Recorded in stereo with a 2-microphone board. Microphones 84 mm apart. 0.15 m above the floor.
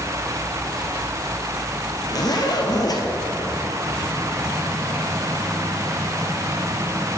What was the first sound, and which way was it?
A zipper, 50° left (ahead or behind).